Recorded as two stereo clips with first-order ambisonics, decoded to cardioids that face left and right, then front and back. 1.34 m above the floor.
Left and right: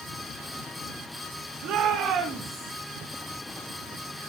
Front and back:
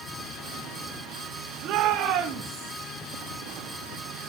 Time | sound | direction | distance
1.6 | a shout | 135° right | 3 m